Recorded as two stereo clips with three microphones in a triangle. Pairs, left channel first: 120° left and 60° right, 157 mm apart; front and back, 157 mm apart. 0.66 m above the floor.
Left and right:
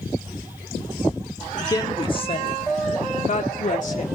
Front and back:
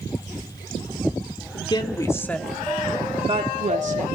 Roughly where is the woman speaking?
Ahead left.